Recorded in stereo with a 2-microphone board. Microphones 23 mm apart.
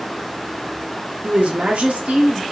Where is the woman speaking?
65° right (ahead or behind), 1.1 m.